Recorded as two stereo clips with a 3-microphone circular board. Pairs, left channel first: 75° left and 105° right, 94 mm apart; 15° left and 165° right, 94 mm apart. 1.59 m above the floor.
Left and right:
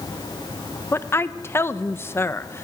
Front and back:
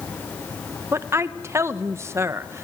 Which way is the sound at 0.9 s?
135° left.